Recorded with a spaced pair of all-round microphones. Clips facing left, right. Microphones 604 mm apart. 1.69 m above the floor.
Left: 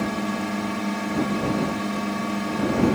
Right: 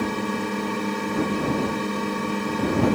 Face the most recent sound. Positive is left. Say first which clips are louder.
# even
turn(degrees=10)  # may be behind; listen again after turning